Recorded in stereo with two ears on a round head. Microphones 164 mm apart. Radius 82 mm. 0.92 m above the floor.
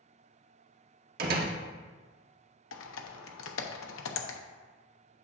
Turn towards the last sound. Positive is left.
turn(degrees=80)